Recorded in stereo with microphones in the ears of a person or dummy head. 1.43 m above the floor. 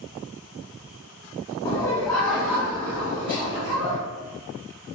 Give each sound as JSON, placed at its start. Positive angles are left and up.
{"t": 1.6, "sound": "laughter", "side_deg": 30, "distance_m": 0.7}